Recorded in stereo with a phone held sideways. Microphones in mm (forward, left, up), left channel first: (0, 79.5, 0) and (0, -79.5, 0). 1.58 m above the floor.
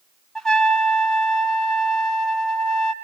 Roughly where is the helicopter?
I don't hear a helicopter.